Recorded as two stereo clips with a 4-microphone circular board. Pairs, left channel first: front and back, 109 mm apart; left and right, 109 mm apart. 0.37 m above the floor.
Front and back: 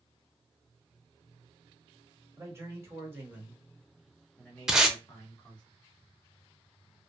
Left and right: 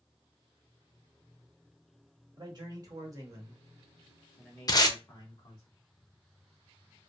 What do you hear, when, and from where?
2.4 s a man speaking: 125° right, 1.3 m; by 5.7 s 55° left, 1.1 m
4.7 s tape being pulled: 100° left, 0.5 m